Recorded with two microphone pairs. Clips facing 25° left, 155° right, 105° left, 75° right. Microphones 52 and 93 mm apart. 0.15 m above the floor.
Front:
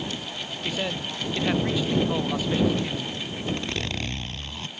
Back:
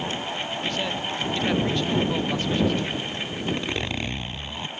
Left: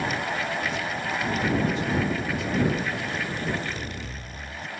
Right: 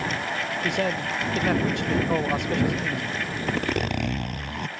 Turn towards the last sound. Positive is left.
turn(degrees=-80)